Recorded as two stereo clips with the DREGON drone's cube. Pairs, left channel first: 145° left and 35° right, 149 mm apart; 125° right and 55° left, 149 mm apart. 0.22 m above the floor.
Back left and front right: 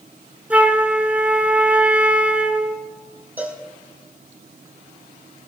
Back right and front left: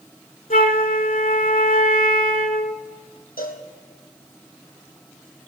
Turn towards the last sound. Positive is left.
turn(degrees=-110)